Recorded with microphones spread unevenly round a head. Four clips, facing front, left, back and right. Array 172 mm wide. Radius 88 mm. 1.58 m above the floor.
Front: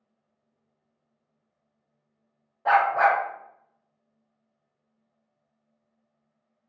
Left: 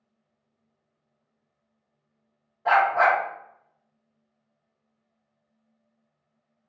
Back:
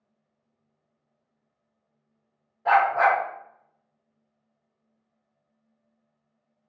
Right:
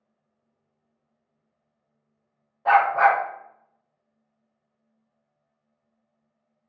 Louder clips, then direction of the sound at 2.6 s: Right 2 dB, even; 5° right.